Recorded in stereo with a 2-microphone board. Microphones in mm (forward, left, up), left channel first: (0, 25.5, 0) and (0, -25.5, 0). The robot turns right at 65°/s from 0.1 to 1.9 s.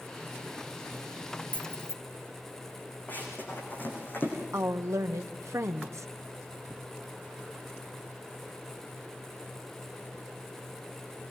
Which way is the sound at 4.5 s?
70° right (ahead or behind).